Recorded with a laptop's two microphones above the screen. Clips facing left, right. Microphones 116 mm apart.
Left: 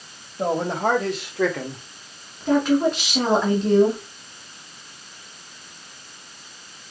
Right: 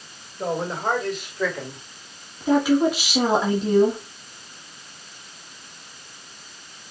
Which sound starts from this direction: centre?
A woman speaking, at 2.4 s.